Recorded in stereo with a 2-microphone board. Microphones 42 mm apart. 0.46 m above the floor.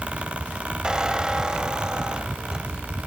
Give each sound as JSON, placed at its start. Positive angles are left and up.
{"t": 0.8, "sound": "a squeak", "side_deg": -20, "distance_m": 1.8}